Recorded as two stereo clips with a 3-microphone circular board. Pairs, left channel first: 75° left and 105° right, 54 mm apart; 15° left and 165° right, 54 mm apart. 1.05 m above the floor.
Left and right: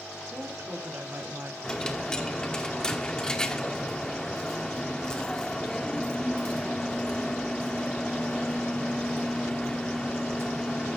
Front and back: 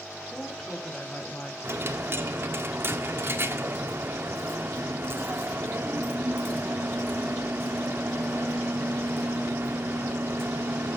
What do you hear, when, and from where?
0.3 s a woman speaking: 70° right, 3 m; by 1.5 s 50° right, 2 m
1.6 s a dropped coin: 150° left, 1.2 m